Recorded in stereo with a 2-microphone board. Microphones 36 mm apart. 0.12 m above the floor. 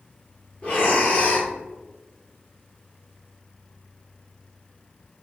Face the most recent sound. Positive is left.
turn(degrees=35)  # may be behind; listen again after turning